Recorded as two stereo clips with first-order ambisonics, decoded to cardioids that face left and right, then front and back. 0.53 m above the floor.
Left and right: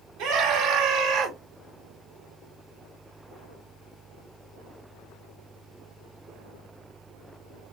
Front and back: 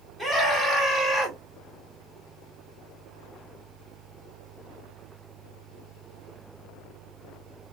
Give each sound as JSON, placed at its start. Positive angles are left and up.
{"t": 0.2, "sound": "a scream", "azimuth_deg": -100, "distance_m": 2.0}